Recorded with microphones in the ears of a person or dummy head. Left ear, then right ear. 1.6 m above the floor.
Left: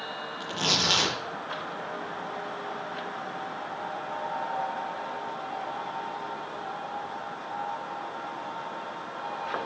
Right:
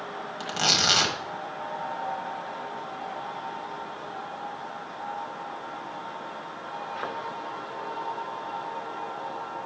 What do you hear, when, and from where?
0.4 s tearing paper: 65° right (ahead or behind), 1.5 m